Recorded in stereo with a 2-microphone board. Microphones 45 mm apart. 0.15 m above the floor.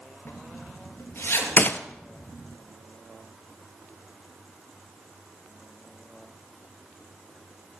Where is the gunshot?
40° left (ahead or behind), 0.8 m.